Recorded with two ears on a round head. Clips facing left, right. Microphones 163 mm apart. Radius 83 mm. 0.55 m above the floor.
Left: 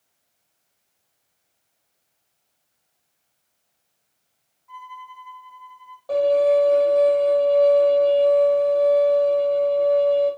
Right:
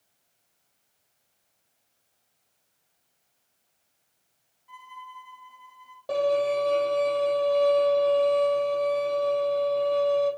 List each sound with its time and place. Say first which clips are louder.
4.7 s a violin: left 5 dB; 30° right (ahead or behind), 3 m
6.1 s a violin: left 7 dB; 25° right (ahead or behind), 5.5 m